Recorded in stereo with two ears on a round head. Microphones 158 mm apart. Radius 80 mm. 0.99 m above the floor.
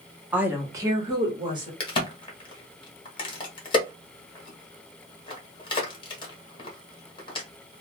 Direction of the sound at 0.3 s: 5° right (ahead or behind).